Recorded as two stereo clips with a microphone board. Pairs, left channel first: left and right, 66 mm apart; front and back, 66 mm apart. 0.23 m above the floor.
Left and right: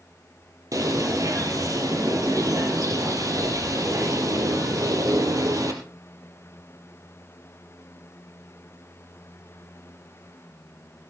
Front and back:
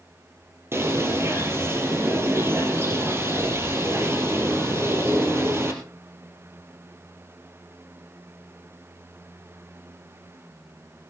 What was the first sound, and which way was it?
A bird, 125° right.